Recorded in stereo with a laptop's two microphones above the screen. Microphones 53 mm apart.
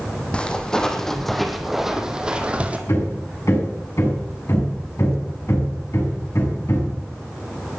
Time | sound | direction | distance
0.3 | footsteps | 20° left (ahead or behind) | 3 m
2.9 | hammering | 65° left (ahead or behind) | 7 m